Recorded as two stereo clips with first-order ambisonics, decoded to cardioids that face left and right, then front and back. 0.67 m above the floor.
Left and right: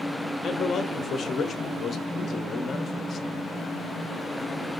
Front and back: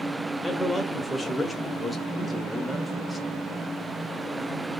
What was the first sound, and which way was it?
A man speaking, 85° left.